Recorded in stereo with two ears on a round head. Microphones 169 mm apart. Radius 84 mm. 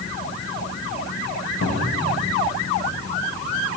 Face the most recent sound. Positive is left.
turn(degrees=80)